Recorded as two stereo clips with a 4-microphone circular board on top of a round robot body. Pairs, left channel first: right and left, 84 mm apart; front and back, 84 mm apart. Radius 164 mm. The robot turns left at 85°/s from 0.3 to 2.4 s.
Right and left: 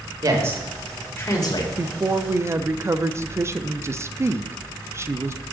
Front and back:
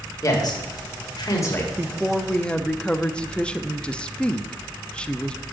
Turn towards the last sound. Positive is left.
turn(degrees=70)